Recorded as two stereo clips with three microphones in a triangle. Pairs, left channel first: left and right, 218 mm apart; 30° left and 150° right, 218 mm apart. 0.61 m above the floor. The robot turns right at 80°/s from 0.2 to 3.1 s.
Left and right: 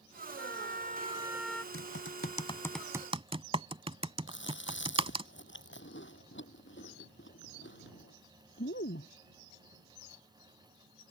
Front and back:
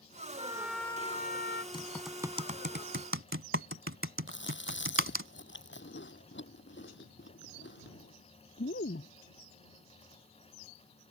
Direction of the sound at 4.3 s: 60° left.